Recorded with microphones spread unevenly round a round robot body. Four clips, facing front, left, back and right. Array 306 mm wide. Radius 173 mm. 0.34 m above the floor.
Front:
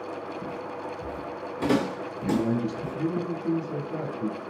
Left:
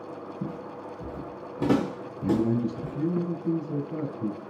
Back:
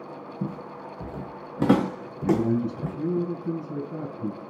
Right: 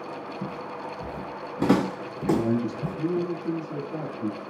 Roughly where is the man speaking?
Left.